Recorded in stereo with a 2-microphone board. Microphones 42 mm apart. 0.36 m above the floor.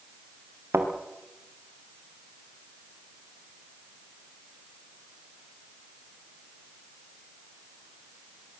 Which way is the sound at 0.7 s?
75° right (ahead or behind).